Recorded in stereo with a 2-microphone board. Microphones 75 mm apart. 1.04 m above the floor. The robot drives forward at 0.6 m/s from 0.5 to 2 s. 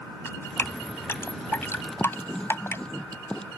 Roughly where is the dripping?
Left.